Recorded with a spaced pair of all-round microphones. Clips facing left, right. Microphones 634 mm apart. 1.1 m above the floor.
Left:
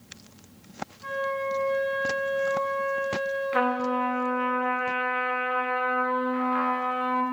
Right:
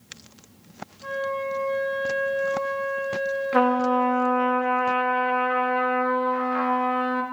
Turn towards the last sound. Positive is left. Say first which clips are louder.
# right 7 dB
turn(degrees=-70)  # may be behind; listen again after turning